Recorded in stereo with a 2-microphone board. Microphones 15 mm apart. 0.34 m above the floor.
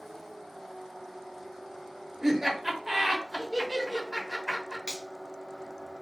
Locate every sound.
2.2 s laughter: 20° right (ahead or behind), 0.9 m
4.9 s a finger snap: 65° left (ahead or behind), 1.4 m